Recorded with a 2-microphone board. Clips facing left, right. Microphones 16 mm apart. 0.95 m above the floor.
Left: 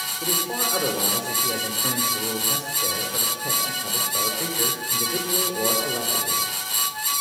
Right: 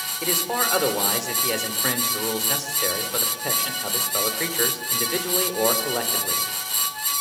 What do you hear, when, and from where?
0.2 s a man speaking: 50° right (ahead or behind), 3 m